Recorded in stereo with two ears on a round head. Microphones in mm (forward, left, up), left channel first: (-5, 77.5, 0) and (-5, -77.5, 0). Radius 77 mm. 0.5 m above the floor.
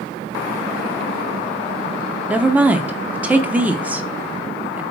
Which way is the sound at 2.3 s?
10° right (ahead or behind).